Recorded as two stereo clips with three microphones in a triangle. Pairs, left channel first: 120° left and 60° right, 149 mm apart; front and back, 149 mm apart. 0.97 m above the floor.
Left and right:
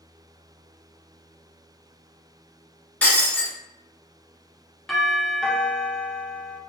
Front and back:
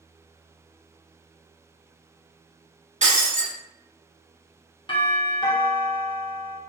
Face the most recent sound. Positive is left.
turn(degrees=35)